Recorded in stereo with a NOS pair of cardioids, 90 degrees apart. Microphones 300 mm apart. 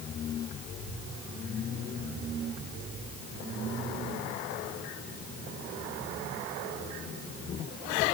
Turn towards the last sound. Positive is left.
No sound to turn to.